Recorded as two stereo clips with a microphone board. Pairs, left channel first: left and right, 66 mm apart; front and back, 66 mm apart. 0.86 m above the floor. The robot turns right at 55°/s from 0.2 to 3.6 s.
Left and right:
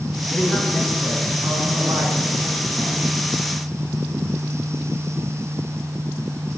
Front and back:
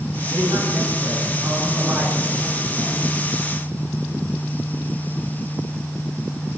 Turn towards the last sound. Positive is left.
turn(degrees=-15)